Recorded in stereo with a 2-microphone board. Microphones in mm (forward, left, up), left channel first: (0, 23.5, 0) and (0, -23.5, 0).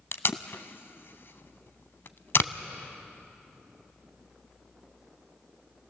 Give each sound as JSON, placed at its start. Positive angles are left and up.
{"t": 0.1, "sound": "tape being pulled", "side_deg": 55, "distance_m": 0.6}